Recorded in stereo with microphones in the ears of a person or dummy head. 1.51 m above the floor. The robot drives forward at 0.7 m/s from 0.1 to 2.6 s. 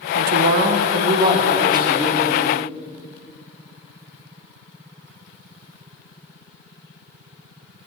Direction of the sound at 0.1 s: 65° right (ahead or behind).